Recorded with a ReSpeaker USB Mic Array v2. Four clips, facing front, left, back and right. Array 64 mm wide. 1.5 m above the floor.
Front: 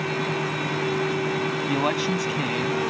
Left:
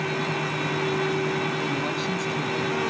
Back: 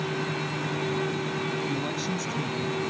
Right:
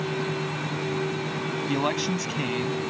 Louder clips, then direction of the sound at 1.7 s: Right 1 dB, front 6 dB; 30° right.